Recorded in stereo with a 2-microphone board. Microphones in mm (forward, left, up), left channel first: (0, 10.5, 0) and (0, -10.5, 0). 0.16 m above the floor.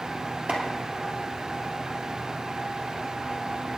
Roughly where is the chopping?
Right.